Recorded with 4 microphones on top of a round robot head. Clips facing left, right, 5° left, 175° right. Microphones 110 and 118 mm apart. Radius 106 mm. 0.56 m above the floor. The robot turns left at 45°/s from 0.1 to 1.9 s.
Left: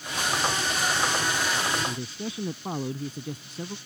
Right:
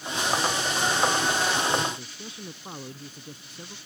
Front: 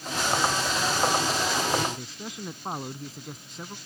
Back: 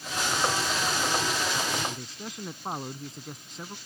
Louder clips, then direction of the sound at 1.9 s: Left 3 dB, front 2 dB; 95° left.